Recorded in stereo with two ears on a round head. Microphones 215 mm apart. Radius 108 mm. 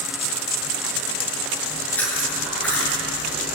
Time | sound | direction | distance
1.6 | chewing | 5° left (ahead or behind) | 6.5 m